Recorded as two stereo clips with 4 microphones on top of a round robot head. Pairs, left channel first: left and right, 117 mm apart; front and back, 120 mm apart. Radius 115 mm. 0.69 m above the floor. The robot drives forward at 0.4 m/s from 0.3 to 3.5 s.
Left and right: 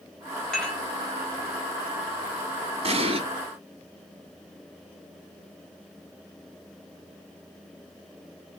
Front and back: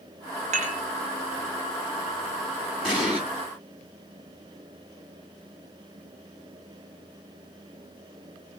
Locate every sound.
0.5 s dishes clattering: 175° left, 1.1 m
2.8 s an explosion: 95° right, 1.5 m; by 3.2 s 100° right, 1.5 m